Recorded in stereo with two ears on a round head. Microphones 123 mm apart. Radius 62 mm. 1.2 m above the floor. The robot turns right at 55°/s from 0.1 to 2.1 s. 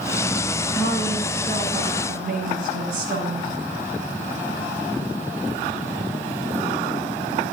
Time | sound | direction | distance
0.7 | a woman speaking | straight behind | 7.5 m